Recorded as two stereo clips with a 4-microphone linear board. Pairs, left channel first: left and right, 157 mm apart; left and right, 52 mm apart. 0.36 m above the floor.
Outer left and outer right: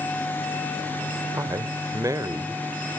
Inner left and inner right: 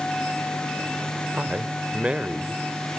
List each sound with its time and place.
1.3 s a man speaking: 20° right (ahead or behind), 1.1 m